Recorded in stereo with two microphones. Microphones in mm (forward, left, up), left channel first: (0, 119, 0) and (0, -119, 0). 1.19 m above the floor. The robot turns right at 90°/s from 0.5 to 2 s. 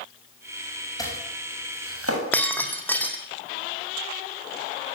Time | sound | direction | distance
1.0 | chopping | 15° left (ahead or behind) | 7.5 m
2.3 | breaking glass | 5° left (ahead or behind) | 3.5 m